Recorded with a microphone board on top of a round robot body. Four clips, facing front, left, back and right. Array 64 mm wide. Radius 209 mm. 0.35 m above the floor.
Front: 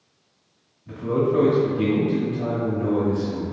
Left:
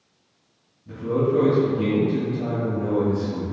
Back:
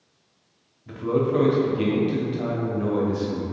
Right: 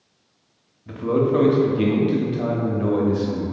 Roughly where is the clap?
No clap in this recording.